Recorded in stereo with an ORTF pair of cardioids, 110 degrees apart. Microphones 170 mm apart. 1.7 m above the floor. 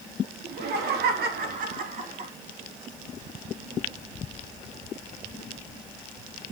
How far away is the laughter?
About 3.5 m.